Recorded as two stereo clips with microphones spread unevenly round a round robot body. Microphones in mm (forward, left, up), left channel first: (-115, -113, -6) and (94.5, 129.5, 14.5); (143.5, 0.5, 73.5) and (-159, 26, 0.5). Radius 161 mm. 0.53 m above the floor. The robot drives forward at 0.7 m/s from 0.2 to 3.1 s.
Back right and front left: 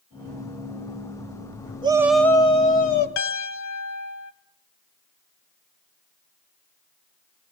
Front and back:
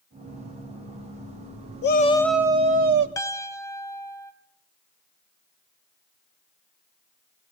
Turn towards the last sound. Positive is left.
turn(degrees=-90)